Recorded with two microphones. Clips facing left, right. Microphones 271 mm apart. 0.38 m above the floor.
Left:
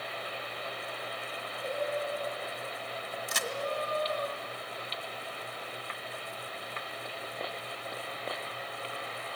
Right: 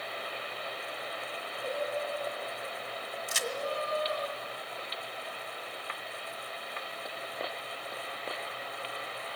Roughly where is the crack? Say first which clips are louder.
Right 2 dB; left.